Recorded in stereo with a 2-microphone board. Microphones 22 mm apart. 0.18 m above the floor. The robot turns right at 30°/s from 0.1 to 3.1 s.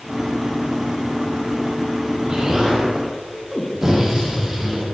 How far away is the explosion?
About 5.5 m.